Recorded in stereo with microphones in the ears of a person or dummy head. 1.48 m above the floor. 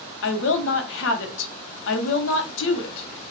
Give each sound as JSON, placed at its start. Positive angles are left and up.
{"t": 0.2, "sound": "a woman speaking", "side_deg": 70, "distance_m": 0.8}